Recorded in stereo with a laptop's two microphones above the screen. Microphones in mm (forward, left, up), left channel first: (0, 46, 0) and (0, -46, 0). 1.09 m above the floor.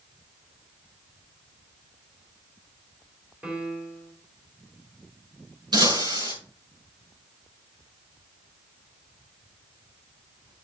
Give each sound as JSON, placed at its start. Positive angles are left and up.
{"t": 3.4, "sound": "a piano", "side_deg": -10, "distance_m": 2.5}
{"t": 5.7, "sound": "breaking glass", "side_deg": -55, "distance_m": 6.5}